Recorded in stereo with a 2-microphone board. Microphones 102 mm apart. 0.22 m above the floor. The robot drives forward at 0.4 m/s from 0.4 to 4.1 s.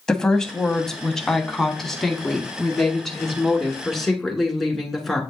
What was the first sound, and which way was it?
A woman speaking, 5° left (ahead or behind).